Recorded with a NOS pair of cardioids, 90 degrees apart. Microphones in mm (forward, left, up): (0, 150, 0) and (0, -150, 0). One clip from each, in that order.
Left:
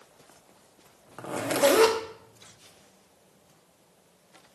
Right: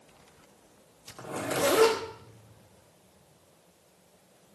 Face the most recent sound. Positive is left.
turn(degrees=35)